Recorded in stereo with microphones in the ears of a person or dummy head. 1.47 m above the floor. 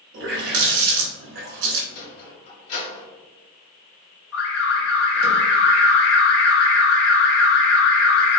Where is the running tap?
65° right (ahead or behind), 1.2 m.